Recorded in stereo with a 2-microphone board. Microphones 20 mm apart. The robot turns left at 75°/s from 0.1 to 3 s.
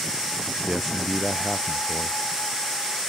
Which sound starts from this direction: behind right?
A man speaking, at 0.7 s.